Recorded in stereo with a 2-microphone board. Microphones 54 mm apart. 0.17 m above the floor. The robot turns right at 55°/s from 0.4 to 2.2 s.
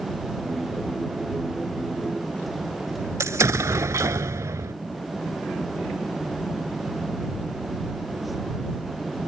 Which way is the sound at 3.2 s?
70° right (ahead or behind).